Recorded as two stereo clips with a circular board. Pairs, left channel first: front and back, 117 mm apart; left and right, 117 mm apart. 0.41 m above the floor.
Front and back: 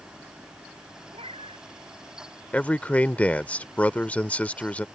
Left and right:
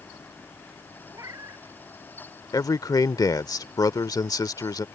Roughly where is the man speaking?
Left.